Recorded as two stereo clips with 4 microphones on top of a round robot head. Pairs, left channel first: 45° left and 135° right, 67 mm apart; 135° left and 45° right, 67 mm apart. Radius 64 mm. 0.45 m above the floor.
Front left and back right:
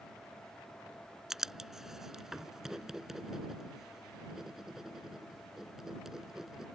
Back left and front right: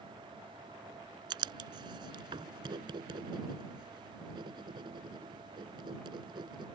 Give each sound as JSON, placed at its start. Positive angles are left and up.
{"t": 1.3, "sound": "writing", "azimuth_deg": -50}